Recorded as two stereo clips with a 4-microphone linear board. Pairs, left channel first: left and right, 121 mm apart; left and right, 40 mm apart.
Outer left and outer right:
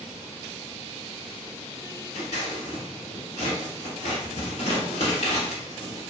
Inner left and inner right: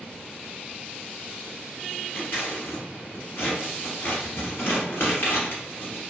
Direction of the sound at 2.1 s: 70° left (ahead or behind).